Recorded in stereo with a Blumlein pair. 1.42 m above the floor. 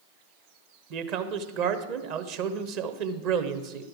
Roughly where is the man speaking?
Ahead right.